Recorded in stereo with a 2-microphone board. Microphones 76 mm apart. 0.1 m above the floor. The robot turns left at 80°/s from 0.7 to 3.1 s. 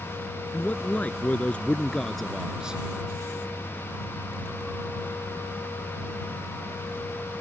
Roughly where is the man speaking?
Centre.